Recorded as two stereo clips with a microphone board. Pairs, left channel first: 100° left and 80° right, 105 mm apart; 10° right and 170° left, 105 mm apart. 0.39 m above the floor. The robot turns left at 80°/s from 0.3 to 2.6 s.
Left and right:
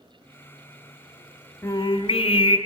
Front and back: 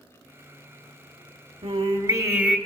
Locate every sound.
1.6 s singing: 160° left, 1.3 m; by 2.6 s 85° left, 1.3 m